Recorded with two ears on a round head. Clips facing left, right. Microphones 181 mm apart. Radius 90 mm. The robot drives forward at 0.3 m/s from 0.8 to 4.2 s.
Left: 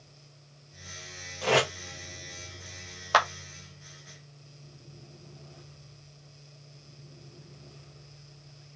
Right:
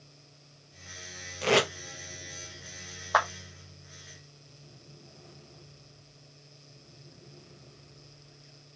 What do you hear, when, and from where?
1.4 s tape being pulled: 30° right (ahead or behind), 1.1 m
3.1 s a clap: 35° left (ahead or behind), 0.6 m; by 3.3 s 40° left (ahead or behind), 0.6 m